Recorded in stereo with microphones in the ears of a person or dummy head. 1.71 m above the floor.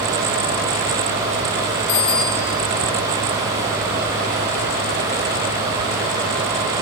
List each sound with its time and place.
1.9 s a bicycle bell: 75° left (ahead or behind), 7 m